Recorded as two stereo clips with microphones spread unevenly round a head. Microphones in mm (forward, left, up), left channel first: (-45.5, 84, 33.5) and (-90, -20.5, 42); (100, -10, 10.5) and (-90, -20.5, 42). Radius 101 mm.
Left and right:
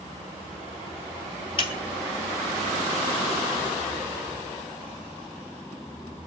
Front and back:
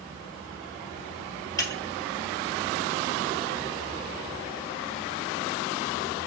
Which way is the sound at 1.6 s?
85° left.